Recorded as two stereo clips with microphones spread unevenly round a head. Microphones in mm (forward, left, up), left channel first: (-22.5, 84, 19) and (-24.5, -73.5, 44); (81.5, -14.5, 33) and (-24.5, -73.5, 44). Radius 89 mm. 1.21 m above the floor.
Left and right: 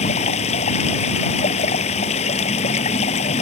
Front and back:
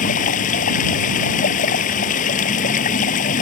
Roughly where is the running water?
Ahead left.